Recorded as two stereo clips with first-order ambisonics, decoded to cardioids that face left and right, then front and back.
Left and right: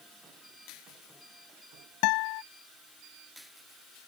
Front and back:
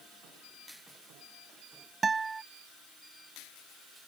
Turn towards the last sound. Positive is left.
turn(degrees=105)